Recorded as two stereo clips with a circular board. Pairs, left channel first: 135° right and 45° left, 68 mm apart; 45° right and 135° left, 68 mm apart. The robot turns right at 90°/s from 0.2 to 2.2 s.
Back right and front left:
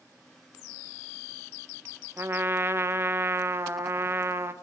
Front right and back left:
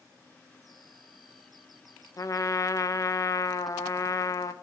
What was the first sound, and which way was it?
A trumpet, 10° right.